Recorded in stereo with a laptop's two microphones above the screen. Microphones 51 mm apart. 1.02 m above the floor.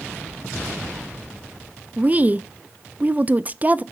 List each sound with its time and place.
2.0 s a woman speaking: 30° right (ahead or behind), 0.5 m